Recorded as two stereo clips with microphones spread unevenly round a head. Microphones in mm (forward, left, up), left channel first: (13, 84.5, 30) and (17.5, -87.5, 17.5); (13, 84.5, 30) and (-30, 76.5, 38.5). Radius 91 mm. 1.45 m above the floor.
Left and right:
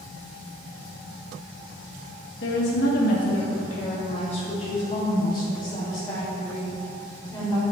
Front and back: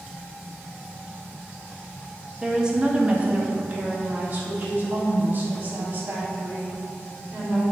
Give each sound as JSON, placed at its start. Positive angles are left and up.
{"t": 2.4, "sound": "a woman speaking", "azimuth_deg": 120, "distance_m": 1.5}